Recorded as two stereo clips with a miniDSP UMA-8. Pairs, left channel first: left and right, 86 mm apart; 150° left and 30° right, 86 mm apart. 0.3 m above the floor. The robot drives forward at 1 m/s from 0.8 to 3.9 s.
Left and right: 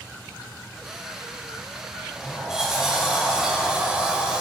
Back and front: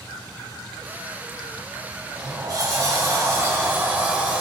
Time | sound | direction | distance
2.0 | a sliding door | 5° right | 2.5 m